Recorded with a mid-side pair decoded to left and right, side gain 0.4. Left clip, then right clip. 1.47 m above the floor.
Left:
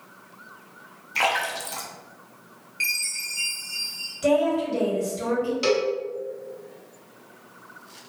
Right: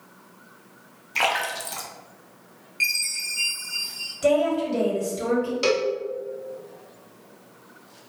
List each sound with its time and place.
1.1 s a splash: 15° right, 0.5 m
2.8 s a chime: 15° right, 1.0 m
4.2 s a woman speaking: 15° right, 1.1 m
5.6 s a cowbell: 15° right, 0.7 m